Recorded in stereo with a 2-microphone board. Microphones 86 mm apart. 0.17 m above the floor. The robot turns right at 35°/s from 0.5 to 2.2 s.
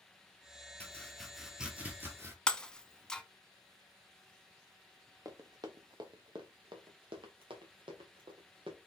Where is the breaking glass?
10° left (ahead or behind), 0.5 m.